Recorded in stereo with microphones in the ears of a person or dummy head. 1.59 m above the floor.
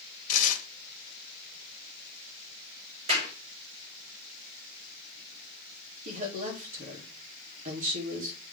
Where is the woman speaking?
40° right (ahead or behind), 2.5 m.